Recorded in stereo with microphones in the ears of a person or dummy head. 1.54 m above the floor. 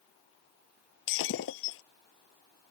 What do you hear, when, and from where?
1.1 s breaking glass: 75° left (ahead or behind)